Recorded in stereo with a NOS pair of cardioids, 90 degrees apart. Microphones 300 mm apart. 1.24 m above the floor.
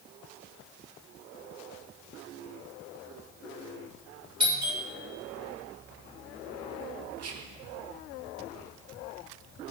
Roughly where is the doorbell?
Ahead.